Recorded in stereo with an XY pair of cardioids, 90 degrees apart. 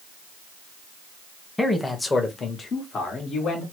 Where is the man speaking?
10° left, 1.0 m; by 3.6 s 70° left, 1.5 m.